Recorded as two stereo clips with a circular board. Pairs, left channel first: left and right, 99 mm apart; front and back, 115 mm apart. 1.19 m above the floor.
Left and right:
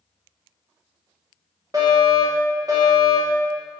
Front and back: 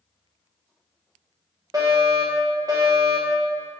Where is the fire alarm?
130° right, 2 m.